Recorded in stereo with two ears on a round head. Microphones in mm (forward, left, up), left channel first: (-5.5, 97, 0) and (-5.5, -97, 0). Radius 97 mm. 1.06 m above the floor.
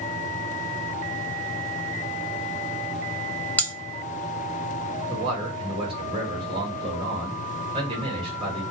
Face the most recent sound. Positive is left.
turn(degrees=-25)  # may be behind; listen again after turning